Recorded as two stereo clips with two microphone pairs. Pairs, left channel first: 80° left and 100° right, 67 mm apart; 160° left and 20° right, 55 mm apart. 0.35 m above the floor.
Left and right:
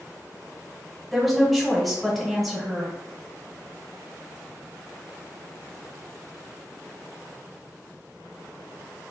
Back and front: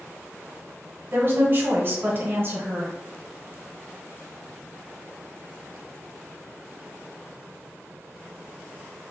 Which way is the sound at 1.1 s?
10° right.